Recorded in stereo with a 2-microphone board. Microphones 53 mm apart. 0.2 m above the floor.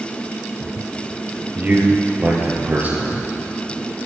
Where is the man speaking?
35° right (ahead or behind), 3.5 m.